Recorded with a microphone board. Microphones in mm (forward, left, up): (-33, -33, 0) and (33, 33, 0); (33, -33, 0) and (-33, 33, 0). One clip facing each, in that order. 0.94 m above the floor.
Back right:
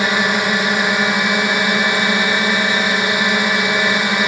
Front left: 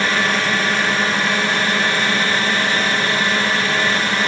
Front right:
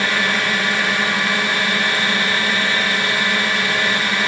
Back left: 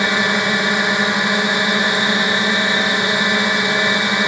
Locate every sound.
0.0 s a drone: 170° left